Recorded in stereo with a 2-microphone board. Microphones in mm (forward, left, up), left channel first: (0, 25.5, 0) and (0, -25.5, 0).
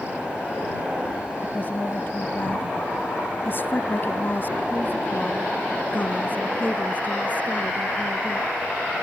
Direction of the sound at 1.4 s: 40° left (ahead or behind).